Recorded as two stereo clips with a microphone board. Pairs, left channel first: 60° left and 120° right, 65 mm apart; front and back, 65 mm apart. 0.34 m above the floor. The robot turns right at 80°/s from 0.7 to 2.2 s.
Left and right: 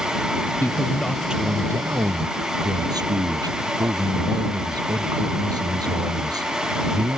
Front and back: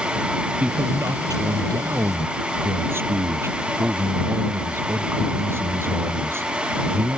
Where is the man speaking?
110° left; by 7.2 s 130° right.